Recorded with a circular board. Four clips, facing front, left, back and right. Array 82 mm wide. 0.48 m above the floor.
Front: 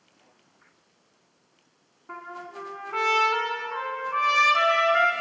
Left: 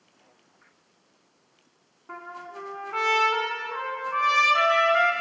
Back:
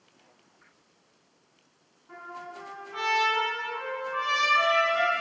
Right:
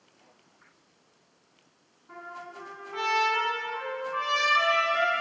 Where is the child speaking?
I don't hear a child speaking.